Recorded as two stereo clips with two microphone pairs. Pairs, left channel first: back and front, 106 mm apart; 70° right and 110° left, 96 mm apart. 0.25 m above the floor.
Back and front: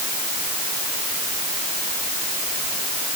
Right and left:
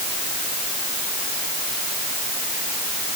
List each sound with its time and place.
Only background noise.